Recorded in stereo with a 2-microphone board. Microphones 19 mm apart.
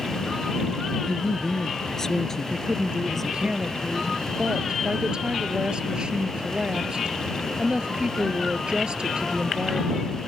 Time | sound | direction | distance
1.0 | a woman speaking | 35° left (ahead or behind) | ?
2.5 | a woman speaking | 45° right (ahead or behind) | ?